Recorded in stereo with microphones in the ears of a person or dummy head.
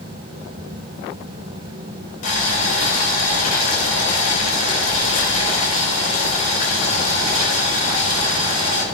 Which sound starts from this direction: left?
Boiling, at 2.2 s.